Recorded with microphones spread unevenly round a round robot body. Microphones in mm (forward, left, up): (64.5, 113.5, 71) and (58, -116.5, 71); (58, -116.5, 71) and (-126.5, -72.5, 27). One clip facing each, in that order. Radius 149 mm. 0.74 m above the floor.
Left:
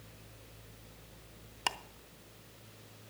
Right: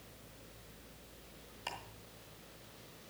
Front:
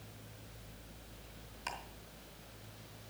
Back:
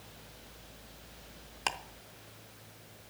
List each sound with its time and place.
1.7 s ticking: 120° left, 0.5 m